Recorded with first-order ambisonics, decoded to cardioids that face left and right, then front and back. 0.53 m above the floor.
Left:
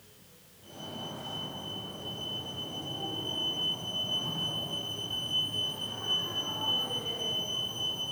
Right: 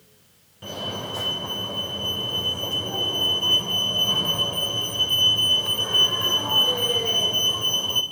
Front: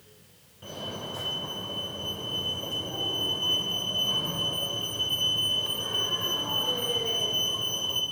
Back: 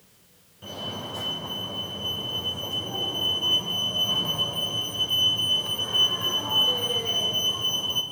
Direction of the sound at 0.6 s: 95° right.